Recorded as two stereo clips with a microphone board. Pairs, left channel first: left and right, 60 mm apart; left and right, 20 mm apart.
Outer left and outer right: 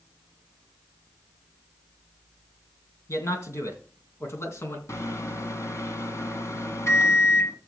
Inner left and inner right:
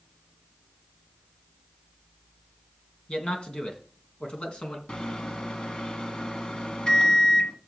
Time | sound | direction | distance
3.1 | a man speaking | 55° left (ahead or behind) | 3 m
4.9 | a microwave | 55° left (ahead or behind) | 1.6 m